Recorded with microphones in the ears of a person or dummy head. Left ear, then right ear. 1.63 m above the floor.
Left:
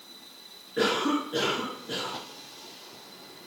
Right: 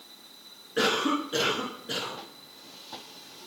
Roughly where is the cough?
Right.